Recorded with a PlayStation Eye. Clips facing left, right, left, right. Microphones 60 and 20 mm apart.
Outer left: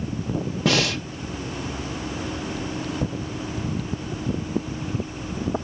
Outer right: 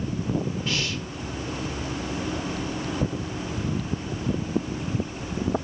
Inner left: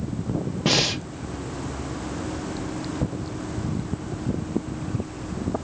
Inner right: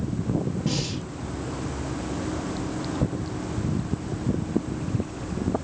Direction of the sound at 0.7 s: 85° left.